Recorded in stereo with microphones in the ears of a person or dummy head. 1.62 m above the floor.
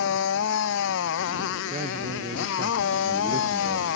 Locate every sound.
0.0 s a motorcycle: 75° left (ahead or behind)
1.7 s a man speaking: 30° right (ahead or behind)